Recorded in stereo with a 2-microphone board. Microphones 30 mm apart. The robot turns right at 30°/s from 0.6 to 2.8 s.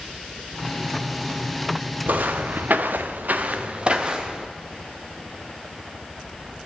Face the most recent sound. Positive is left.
turn(degrees=-20)  # may be behind; listen again after turning